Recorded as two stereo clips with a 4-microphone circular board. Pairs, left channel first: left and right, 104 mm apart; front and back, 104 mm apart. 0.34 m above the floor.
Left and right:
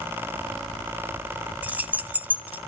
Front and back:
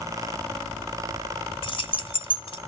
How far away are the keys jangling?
About 1.8 m.